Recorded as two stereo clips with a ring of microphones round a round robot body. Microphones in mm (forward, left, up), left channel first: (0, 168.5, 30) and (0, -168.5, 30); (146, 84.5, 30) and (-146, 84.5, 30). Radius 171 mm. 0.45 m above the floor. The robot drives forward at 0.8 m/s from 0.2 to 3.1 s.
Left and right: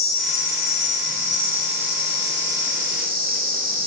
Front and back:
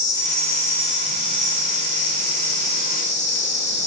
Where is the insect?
10° right, 3 m; by 3.9 s 50° right, 1.4 m.